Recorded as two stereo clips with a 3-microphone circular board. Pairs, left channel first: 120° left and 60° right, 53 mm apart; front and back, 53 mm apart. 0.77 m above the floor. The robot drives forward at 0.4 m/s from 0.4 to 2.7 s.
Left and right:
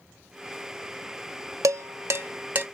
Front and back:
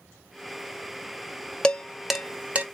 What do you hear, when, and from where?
1.6 s dishes clattering: 70° right, 0.5 m; by 2.6 s 115° right, 0.5 m